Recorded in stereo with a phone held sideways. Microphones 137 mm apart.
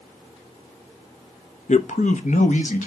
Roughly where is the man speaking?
Left.